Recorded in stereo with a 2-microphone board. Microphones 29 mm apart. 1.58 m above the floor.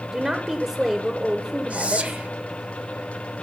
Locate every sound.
0.1 s a woman speaking: 30° right (ahead or behind), 1.0 m
1.7 s whispering: 45° right (ahead or behind), 0.9 m